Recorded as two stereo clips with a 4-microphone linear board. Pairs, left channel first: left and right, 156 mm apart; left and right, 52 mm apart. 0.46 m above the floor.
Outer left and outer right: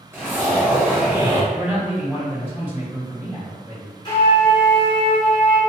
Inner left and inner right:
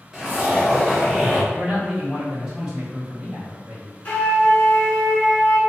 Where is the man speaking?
10° right (ahead or behind), 1.5 m.